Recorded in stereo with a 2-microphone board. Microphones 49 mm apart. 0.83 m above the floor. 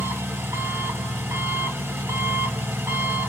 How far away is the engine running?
About 1.8 m.